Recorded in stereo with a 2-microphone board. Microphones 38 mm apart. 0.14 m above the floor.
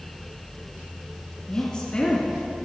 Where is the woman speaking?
25° left (ahead or behind), 1.5 m.